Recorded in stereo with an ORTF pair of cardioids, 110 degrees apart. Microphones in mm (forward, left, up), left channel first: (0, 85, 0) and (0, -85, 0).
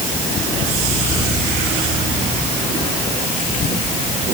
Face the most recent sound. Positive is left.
No sound to turn to.